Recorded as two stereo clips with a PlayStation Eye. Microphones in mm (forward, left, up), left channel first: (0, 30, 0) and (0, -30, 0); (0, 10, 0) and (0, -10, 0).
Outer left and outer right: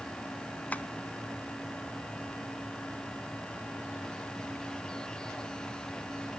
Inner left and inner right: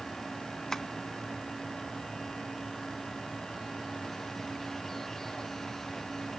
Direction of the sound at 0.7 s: 25° left (ahead or behind).